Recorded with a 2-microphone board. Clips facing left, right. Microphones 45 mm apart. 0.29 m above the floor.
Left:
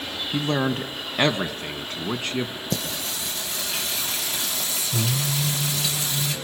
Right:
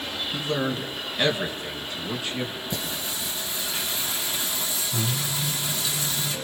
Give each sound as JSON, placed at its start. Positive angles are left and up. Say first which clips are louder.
{"t": 0.3, "sound": "a man speaking", "louder": "left 4 dB", "side_deg": 50, "distance_m": 1.8}
{"t": 2.7, "sound": "singing", "louder": "left 2 dB", "side_deg": 85, "distance_m": 4.5}